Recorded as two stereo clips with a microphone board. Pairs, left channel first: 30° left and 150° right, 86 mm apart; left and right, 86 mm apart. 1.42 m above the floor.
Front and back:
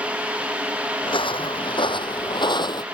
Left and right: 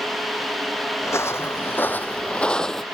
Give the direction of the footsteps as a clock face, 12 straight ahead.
11 o'clock.